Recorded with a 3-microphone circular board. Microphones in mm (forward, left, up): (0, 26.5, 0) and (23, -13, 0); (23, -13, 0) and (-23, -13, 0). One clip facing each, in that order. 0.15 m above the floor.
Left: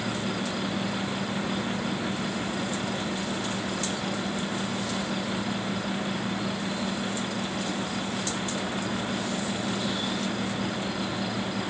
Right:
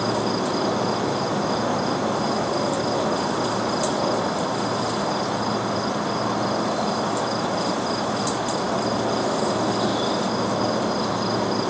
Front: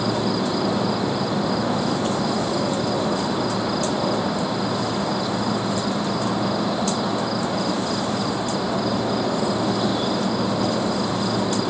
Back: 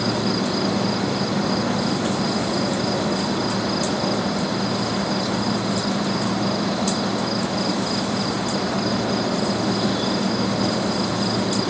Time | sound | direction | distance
0.0 | an insect | 75° right | ?